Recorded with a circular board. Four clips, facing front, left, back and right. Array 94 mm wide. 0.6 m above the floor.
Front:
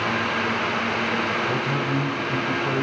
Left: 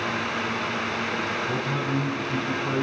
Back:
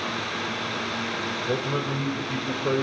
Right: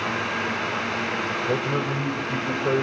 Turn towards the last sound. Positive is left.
turn(degrees=-130)